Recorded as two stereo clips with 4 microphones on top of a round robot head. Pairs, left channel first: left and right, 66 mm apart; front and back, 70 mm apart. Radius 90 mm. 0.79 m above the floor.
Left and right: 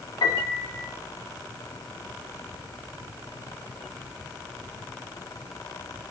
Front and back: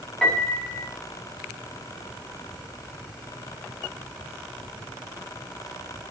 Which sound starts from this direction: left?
A piano, at 0.2 s.